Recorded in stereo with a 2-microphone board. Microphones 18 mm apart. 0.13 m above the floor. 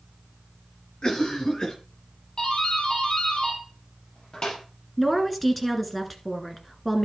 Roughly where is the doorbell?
Left.